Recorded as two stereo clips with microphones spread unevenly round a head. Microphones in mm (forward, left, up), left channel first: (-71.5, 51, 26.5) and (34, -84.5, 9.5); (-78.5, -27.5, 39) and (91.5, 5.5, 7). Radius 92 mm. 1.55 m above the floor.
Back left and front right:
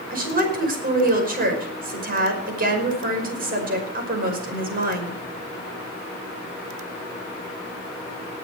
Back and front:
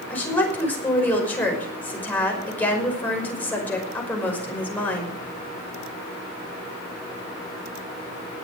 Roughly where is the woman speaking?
Right.